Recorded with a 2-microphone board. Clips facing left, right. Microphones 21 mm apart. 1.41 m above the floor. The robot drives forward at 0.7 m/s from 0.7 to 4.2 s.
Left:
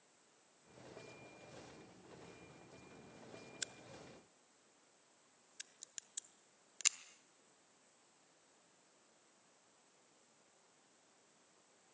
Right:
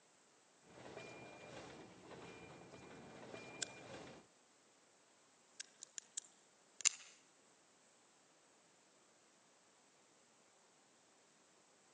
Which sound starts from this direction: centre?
A crack, at 3.6 s.